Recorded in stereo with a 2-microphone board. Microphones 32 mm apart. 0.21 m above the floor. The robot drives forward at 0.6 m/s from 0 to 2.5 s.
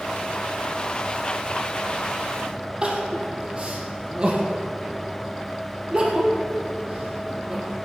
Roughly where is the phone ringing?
No phone ringing in this recording.